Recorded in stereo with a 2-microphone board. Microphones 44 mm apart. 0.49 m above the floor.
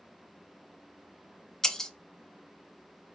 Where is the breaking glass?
10° left (ahead or behind), 0.5 m.